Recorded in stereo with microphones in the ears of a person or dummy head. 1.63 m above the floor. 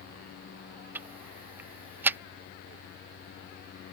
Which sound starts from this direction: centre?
Ticking, at 0.9 s.